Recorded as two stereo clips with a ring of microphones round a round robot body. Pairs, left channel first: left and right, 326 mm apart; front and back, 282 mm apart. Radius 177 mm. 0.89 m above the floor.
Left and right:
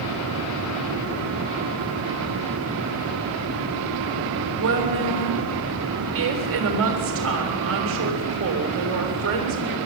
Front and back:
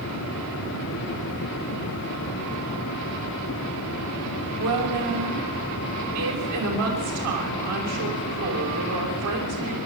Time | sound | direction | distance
4.6 | a woman speaking | 140° right | 6 m